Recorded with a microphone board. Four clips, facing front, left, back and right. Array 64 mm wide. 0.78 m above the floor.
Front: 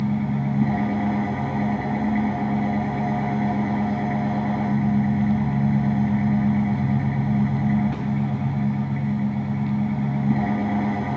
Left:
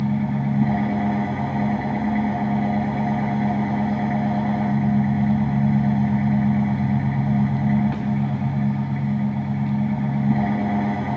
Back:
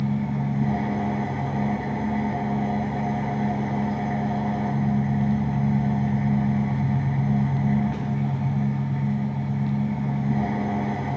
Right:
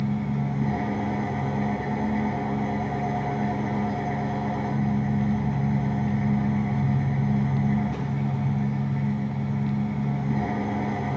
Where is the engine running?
85° left, 4.5 m.